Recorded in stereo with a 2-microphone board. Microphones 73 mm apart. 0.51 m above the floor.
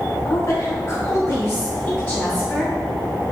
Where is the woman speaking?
50° left (ahead or behind), 1.6 m; by 2.7 s 20° left (ahead or behind), 3 m.